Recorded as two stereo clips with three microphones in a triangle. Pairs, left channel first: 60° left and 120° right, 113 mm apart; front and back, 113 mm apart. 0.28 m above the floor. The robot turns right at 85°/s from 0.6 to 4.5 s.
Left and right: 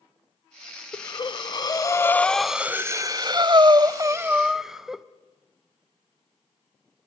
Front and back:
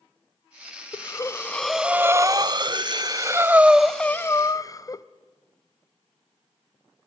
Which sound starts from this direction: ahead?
Breathing, at 0.9 s.